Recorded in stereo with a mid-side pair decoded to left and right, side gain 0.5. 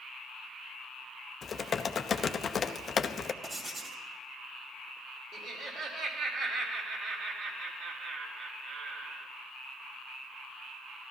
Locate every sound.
1.4 s typing on a keyboard: 40° left, 0.8 m
3.4 s writing: 20° right, 2.5 m
5.3 s laughter: 60° right, 3.5 m